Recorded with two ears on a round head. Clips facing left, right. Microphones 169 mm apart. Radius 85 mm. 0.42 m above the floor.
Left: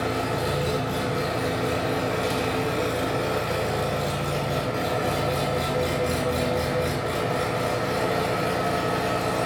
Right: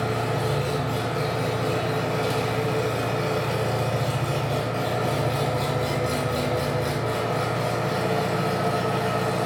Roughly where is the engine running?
Centre.